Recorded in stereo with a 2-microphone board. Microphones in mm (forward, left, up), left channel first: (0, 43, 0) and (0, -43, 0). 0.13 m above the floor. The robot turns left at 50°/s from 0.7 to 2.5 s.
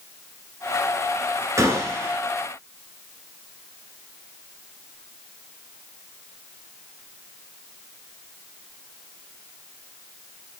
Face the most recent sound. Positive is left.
turn(degrees=-155)